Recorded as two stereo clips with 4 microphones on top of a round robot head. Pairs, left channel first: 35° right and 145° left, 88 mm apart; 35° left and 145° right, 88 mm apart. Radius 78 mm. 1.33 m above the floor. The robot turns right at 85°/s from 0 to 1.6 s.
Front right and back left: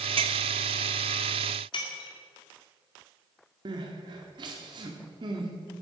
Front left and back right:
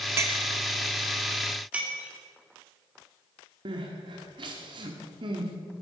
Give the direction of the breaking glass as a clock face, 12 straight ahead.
2 o'clock.